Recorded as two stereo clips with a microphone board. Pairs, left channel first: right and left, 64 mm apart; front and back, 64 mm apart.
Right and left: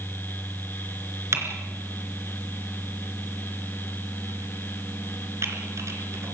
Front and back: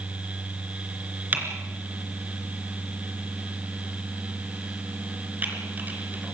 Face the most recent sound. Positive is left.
turn(degrees=125)